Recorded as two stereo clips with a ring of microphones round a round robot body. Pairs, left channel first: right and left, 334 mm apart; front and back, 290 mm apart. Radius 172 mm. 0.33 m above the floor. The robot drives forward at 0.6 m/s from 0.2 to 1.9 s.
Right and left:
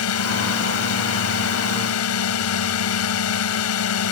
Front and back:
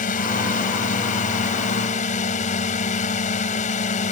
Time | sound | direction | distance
0.0 | a drone | 60° right | ?